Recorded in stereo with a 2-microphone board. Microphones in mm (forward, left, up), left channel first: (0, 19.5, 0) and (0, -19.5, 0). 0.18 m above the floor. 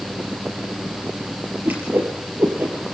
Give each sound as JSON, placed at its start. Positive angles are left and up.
{"t": 1.6, "sound": "a whoosh", "side_deg": -60, "distance_m": 6.0}